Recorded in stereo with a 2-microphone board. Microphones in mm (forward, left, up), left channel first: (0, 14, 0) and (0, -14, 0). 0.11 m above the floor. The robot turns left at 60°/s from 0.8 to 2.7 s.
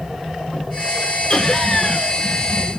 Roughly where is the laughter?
Centre.